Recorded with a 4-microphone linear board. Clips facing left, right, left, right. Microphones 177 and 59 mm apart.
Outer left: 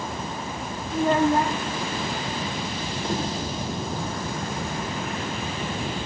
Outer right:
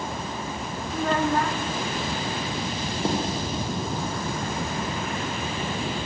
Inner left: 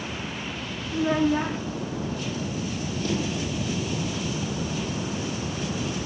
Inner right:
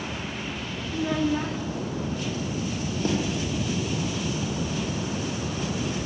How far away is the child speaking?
About 0.7 m.